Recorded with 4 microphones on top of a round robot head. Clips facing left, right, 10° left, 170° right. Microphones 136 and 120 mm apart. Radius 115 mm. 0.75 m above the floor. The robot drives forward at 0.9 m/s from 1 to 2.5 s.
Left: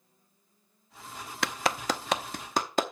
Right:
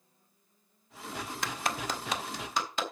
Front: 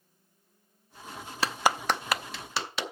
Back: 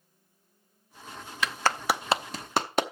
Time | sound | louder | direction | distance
1.4 | a clap | left 6 dB, front 1 dB | 65° left | 0.7 m